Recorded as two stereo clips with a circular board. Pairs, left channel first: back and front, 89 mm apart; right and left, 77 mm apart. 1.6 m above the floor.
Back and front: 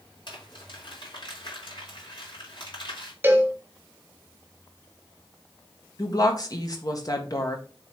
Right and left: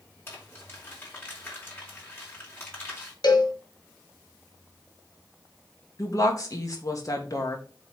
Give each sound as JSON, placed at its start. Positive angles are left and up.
{"t": 0.3, "sound": "crumpling", "azimuth_deg": -150, "distance_m": 3.5}
{"t": 3.2, "sound": "a cowbell", "azimuth_deg": -70, "distance_m": 1.4}
{"t": 6.0, "sound": "a woman speaking", "azimuth_deg": -135, "distance_m": 1.8}